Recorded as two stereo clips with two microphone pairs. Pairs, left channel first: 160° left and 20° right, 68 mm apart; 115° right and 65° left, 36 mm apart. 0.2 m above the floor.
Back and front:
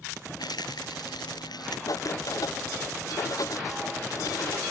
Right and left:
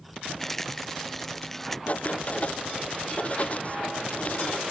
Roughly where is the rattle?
Behind.